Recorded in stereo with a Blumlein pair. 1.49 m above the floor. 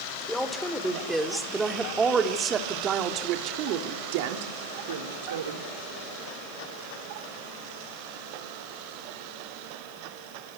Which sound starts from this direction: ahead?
A woman speaking, at 0.3 s.